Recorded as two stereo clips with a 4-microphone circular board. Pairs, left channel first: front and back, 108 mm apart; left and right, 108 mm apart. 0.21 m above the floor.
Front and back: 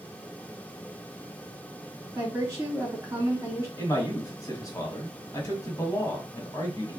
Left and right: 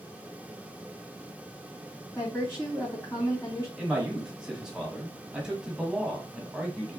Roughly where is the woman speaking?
Behind left.